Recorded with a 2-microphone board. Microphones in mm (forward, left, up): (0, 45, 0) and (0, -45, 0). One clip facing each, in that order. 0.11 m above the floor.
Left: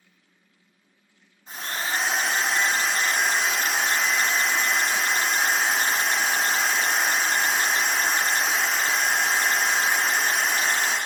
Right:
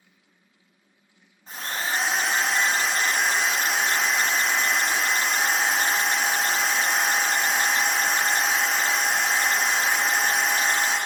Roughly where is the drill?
Right.